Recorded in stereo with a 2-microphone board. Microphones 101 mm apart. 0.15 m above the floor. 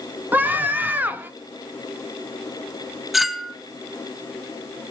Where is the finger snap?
I don't hear a finger snap.